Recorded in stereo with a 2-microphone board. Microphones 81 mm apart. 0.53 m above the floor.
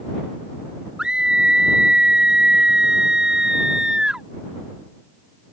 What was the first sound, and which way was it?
A scream, 10° right (ahead or behind).